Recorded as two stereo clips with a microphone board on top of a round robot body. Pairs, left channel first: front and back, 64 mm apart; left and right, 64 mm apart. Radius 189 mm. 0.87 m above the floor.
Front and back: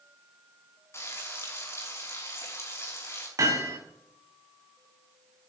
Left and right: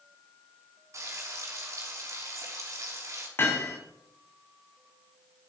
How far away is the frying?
About 5.5 m.